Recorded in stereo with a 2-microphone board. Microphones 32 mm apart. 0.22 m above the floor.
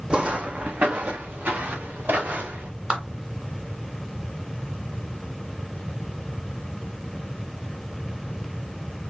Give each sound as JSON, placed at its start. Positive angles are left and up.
{"t": 0.1, "sound": "footsteps", "side_deg": -30, "distance_m": 0.6}
{"t": 2.9, "sound": "a clap", "side_deg": -30, "distance_m": 1.7}